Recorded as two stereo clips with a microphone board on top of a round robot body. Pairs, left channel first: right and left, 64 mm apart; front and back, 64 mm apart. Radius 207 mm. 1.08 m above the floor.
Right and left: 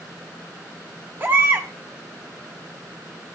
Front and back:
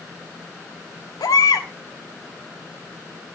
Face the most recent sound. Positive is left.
turn(degrees=30)